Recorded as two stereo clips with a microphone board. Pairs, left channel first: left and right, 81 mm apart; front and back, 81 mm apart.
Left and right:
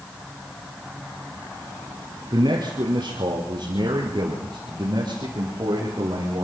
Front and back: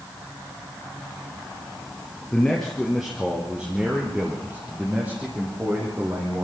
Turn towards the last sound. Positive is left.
turn(degrees=-120)